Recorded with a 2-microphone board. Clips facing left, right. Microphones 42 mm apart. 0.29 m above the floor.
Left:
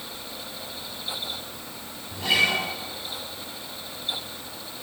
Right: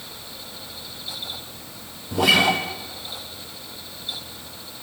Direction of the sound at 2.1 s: 75° right (ahead or behind).